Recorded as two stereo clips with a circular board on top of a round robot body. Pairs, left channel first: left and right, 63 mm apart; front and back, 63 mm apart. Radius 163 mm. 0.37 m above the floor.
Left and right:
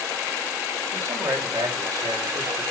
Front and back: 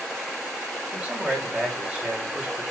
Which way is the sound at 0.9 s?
110° right.